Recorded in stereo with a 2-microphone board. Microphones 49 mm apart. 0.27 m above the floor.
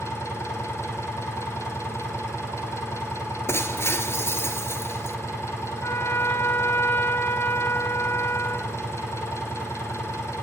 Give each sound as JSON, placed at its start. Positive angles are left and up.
{"t": 0.0, "sound": "an engine running", "side_deg": 65, "distance_m": 4.5}
{"t": 3.5, "sound": "breaking glass", "side_deg": 55, "distance_m": 2.0}
{"t": 5.8, "sound": "a trumpet", "side_deg": 50, "distance_m": 1.3}